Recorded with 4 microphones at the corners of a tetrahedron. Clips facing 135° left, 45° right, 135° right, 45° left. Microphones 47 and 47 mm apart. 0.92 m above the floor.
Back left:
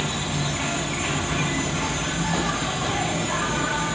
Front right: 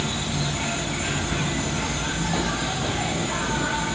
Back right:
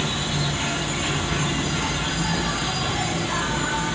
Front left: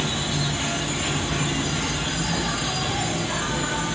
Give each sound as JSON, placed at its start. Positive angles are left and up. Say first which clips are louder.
{"t": 0.0, "sound": "an insect", "louder": "back left 1 dB, back right 1 dB", "azimuth_deg": 145, "distance_m": 1.9}